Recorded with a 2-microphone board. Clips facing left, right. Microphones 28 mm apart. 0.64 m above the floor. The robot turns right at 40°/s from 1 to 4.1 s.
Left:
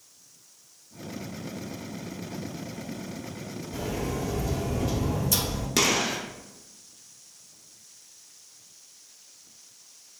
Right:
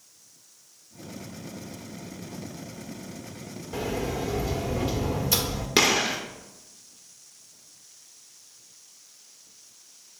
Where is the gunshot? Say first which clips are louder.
Right 3 dB; 25° right (ahead or behind), 1.0 m.